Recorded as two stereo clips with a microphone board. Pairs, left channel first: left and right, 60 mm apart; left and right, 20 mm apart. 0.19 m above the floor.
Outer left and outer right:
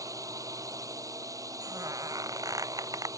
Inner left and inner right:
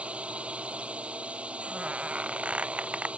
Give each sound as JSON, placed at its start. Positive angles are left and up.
{"t": 0.0, "sound": "a drone", "side_deg": -70}
{"t": 1.6, "sound": "a squeak", "side_deg": -85}